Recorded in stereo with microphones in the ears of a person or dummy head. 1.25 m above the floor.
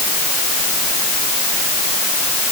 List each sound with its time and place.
Only background noise.